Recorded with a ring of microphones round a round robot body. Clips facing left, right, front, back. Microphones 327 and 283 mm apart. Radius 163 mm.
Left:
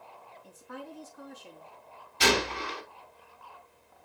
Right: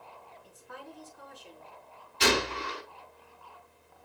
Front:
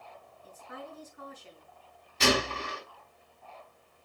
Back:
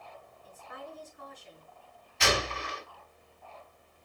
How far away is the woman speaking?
About 5 m.